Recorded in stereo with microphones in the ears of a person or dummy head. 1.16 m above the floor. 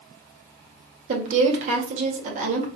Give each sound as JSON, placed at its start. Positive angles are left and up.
{"t": 1.1, "sound": "a woman speaking", "side_deg": -45, "distance_m": 1.6}